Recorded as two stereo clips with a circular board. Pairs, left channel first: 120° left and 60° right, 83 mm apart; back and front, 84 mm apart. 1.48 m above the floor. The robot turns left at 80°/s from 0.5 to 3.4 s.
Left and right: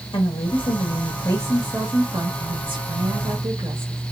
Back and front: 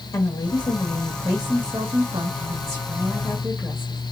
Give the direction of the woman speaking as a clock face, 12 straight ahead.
7 o'clock.